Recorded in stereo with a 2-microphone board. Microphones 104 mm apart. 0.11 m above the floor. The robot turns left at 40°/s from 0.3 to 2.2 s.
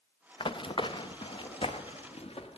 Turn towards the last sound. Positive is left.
turn(degrees=70)  # may be behind; listen again after turning